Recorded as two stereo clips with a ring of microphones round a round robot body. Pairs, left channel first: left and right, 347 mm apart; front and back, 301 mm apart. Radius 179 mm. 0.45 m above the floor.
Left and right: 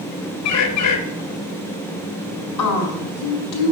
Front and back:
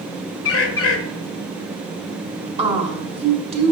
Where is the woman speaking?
110° left, 1.9 m.